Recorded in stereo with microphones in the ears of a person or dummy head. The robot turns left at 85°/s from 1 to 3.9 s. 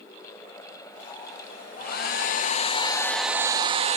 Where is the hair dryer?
130° left, 0.7 m; by 4.0 s 50° right, 0.7 m.